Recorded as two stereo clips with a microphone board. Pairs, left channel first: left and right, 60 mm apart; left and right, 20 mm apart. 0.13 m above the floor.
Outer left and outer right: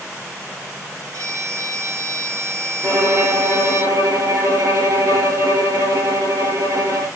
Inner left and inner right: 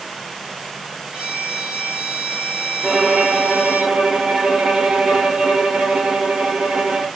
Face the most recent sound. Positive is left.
turn(degrees=-55)  # may be behind; listen again after turning